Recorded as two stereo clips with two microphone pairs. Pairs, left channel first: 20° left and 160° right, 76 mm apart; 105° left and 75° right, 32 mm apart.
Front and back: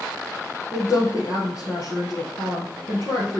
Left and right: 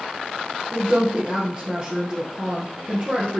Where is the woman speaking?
20° right, 2 m.